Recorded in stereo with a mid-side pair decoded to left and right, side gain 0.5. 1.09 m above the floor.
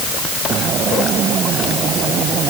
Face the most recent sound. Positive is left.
No sound to turn to.